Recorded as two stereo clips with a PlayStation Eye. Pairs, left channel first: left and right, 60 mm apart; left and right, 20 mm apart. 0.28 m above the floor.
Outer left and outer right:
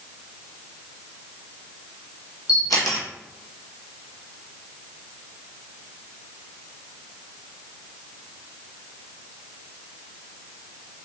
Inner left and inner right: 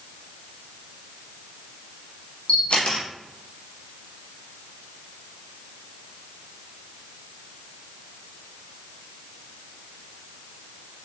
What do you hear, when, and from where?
2.5 s a camera shutter: 85° left, 1.7 m